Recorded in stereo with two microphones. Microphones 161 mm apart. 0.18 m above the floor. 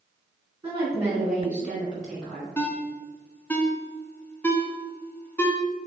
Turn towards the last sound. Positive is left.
turn(degrees=15)  # may be behind; listen again after turning